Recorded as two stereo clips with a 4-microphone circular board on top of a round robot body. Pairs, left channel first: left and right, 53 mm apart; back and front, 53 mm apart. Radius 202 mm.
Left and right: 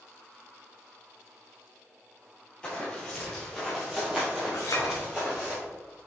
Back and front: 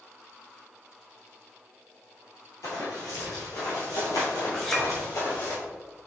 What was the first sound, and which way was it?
Running footsteps, 165° left.